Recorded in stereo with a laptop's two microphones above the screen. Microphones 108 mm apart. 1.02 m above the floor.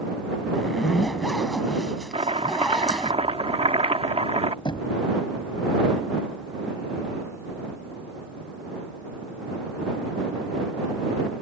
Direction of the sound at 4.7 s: 50° left (ahead or behind).